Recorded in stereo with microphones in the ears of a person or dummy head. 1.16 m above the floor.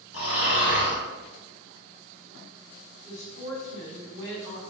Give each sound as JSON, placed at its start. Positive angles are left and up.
{"t": 0.1, "sound": "snoring", "side_deg": 75, "distance_m": 1.5}
{"t": 3.0, "sound": "a woman speaking", "side_deg": 45, "distance_m": 1.7}